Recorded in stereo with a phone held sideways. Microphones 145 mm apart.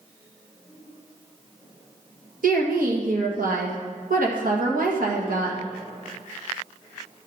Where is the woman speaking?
80° right, 1.6 m.